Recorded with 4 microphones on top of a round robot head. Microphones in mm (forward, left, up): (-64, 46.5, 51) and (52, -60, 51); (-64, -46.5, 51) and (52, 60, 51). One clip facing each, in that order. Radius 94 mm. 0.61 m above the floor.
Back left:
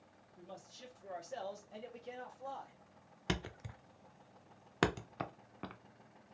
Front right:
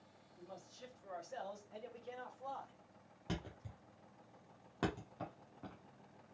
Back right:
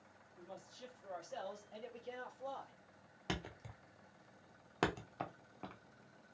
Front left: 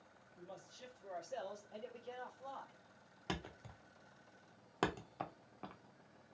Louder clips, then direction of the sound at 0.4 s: Back left 1 dB, back right 1 dB; 95° left.